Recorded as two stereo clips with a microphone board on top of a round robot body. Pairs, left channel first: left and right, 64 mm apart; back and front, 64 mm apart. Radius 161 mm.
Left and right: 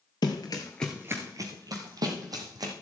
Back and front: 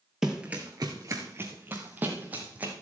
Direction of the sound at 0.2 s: 85° left.